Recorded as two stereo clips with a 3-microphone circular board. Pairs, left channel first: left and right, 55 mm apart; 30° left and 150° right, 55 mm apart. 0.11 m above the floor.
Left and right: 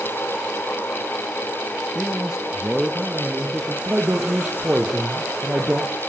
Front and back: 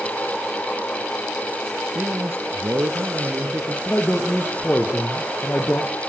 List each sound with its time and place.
1.9 s a man speaking: 170° right, 1.6 m; by 3.8 s 160° right, 3 m
3.9 s a man speaking: 25° right, 3.5 m